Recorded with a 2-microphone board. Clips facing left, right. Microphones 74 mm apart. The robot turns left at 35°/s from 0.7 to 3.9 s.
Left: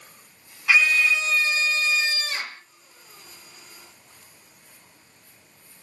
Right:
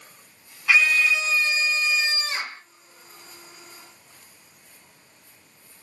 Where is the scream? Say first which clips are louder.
Even; 10° left, 1.1 m; by 2.6 s 60° right, 1.1 m.